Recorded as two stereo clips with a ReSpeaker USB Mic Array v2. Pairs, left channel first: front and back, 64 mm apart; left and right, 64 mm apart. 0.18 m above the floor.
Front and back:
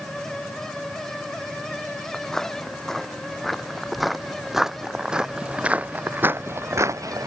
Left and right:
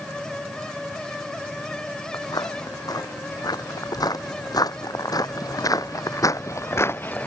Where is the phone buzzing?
I don't hear a phone buzzing.